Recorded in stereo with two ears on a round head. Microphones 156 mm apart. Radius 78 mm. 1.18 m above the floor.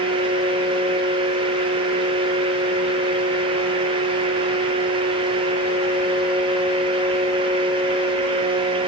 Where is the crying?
I don't hear crying.